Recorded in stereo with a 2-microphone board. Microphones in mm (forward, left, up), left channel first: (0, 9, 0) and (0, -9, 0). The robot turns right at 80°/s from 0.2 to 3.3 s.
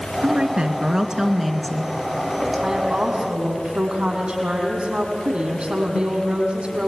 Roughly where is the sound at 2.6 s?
Behind right.